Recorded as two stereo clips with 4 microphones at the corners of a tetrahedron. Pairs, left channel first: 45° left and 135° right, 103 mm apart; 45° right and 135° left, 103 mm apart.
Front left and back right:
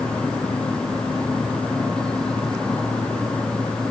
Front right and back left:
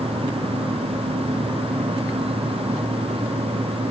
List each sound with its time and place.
Only background noise.